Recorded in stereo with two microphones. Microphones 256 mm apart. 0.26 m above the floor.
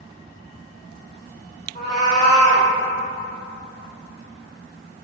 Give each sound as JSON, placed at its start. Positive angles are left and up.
{"t": 1.8, "sound": "a cat meowing", "side_deg": 25, "distance_m": 1.7}